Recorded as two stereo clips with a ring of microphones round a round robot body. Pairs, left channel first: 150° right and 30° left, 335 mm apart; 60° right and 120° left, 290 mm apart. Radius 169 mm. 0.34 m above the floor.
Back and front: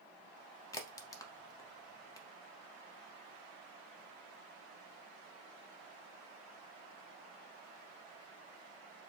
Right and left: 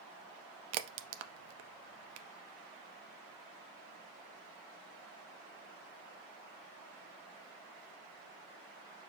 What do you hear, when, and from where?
0.7 s a crack: 130° left, 0.5 m